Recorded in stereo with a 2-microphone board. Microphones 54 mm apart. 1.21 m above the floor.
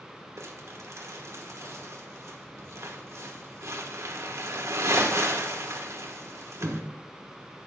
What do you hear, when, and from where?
0.4 s crumpling: 60° right (ahead or behind), 1.1 m